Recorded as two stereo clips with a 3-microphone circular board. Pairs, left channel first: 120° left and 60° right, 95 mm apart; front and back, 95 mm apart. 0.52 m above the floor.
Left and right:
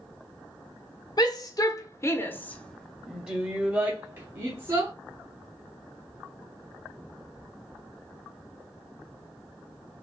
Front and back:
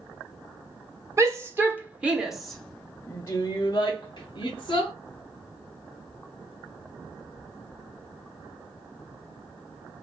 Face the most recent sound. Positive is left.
turn(degrees=-20)